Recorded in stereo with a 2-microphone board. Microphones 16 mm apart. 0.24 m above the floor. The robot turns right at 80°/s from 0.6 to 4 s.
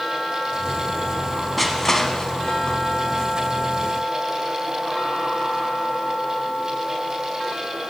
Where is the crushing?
Centre (ahead or behind), 1.0 m; by 2.8 s 55° left (ahead or behind), 1.0 m.